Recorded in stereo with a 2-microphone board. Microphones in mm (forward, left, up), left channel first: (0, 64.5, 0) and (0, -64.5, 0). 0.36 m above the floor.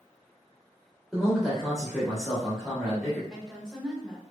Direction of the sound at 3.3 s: Centre (ahead or behind).